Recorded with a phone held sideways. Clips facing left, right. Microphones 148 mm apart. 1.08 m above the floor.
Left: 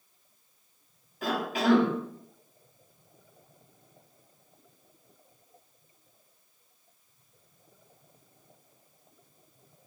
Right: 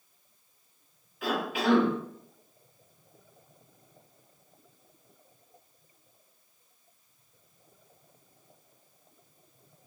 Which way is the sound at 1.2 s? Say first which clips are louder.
Left 1 dB; 40° left (ahead or behind).